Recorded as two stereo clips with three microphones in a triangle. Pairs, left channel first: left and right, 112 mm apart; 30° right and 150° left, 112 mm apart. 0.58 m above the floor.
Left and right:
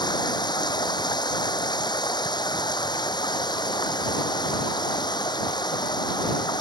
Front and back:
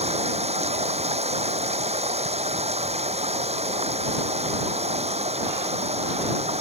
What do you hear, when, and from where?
0.0 s running water: 140° left